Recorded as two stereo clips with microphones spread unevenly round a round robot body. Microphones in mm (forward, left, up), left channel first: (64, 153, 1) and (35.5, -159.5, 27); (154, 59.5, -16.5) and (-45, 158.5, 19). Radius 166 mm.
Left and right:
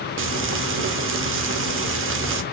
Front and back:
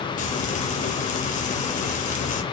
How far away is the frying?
About 0.7 m.